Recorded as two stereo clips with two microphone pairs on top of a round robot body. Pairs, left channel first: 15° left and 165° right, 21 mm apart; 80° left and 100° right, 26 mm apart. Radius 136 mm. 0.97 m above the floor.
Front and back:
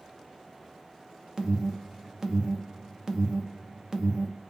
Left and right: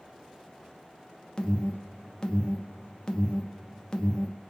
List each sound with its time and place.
1.4 s an alarm: 140° left, 0.6 m